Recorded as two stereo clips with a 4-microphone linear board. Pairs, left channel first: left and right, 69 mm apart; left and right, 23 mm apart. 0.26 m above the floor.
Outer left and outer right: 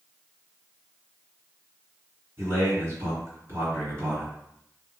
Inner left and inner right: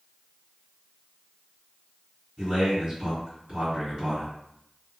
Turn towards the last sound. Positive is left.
turn(degrees=-40)  # may be behind; listen again after turning